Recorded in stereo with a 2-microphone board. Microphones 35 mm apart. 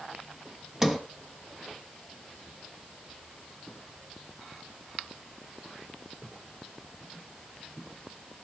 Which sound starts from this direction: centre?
A sliding door, at 0.8 s.